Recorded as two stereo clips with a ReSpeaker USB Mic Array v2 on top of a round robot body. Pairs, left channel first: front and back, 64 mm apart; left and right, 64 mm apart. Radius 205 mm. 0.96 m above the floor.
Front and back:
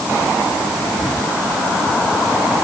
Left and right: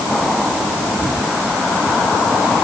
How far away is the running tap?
No running tap in this recording.